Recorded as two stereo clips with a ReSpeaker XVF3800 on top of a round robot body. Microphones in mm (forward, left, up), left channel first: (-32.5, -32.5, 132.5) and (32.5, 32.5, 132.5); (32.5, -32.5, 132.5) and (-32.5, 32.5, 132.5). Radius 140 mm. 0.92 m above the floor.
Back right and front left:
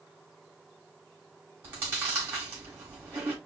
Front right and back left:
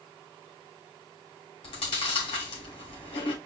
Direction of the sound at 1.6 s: 25° right.